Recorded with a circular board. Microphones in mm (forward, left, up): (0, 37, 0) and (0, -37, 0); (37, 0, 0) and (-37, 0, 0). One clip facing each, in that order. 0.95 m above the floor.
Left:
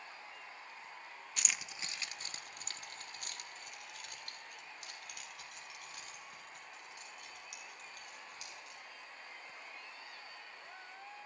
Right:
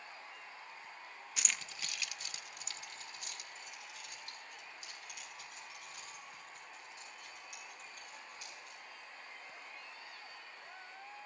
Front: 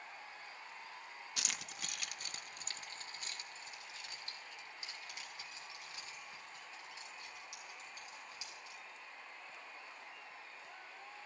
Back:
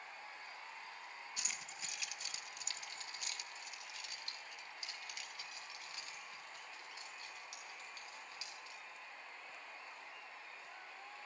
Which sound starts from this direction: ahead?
Keys jangling, at 1.4 s.